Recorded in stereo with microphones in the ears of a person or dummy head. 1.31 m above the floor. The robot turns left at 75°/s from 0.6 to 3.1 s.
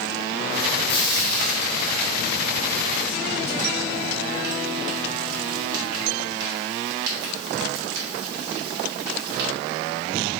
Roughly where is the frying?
Left.